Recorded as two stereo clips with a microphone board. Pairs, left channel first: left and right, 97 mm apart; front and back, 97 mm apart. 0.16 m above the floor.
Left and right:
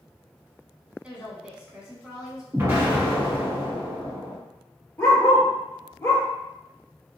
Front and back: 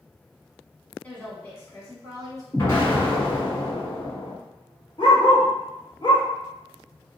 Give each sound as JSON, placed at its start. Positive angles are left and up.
{"t": 1.0, "sound": "a woman speaking", "azimuth_deg": -40, "distance_m": 1.2}
{"t": 2.5, "sound": "an explosion", "azimuth_deg": -40, "distance_m": 1.6}
{"t": 5.0, "sound": "a dog barking", "azimuth_deg": 30, "distance_m": 1.3}